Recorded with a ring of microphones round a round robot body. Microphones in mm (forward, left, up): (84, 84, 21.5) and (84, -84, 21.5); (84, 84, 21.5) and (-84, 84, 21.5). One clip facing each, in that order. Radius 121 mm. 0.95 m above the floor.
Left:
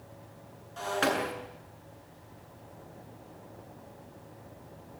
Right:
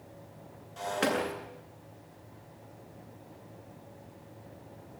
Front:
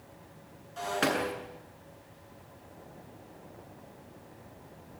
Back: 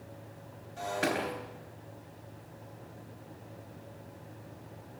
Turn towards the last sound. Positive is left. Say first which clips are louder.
# even, front 2 dB
turn(degrees=-15)